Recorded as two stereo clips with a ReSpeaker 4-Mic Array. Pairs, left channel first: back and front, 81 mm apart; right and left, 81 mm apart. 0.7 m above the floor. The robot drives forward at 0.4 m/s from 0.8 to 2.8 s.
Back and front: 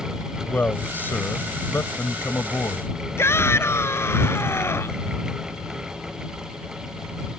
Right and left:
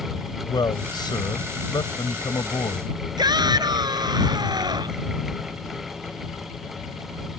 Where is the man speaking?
115° right; by 2.9 s 125° right.